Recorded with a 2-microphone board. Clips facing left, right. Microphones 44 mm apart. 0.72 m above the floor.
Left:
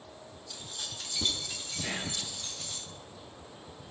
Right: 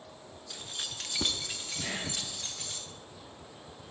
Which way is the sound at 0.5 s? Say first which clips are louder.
Right 2 dB; 30° right (ahead or behind).